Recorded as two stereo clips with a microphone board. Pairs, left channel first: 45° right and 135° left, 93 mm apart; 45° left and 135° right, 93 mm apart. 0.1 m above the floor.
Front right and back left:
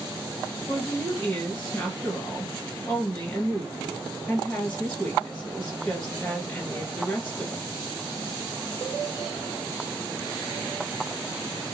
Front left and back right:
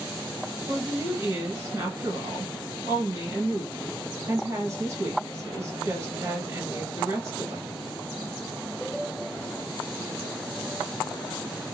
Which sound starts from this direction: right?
A woman speaking, at 0.7 s.